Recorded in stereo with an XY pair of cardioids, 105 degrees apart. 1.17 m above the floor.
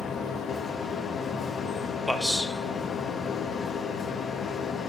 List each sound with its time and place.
0.0 s a machine running: 55° left, 0.8 m
2.1 s a man speaking: 5° left, 0.7 m